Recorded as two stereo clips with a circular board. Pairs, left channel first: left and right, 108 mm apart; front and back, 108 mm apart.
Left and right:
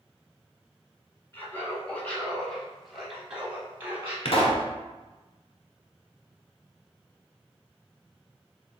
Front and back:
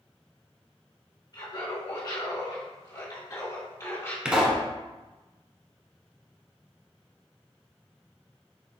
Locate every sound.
1.3 s laughter: 30° left, 2.0 m; by 4.2 s 40° right, 1.5 m
4.2 s a pop: 100° left, 1.0 m